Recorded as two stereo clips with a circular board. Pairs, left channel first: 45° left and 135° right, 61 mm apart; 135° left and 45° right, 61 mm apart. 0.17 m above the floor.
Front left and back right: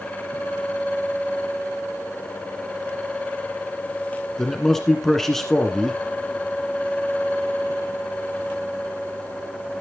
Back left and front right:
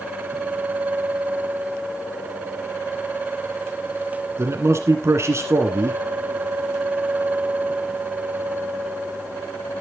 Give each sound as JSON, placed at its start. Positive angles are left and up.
{"t": 4.4, "sound": "a man speaking", "azimuth_deg": -40, "distance_m": 1.8}